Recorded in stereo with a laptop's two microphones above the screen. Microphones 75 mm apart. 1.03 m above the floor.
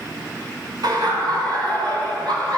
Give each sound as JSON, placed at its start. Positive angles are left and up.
{"t": 0.8, "sound": "laughter", "side_deg": -75, "distance_m": 3.5}